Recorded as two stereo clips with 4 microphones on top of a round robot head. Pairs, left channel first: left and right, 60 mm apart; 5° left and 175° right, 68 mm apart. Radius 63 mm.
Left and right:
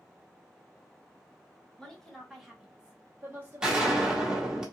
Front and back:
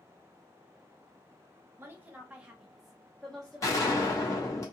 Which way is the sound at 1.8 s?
155° left.